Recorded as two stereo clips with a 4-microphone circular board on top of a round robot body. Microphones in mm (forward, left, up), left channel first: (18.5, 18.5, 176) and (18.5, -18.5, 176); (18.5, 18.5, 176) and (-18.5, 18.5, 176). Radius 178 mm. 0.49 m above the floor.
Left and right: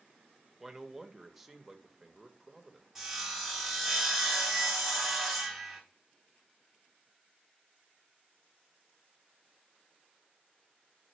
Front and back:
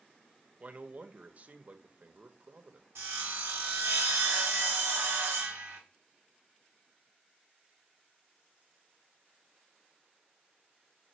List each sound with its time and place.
0.6 s a man speaking: 175° right, 1.0 m
3.0 s sawing: 175° right, 0.5 m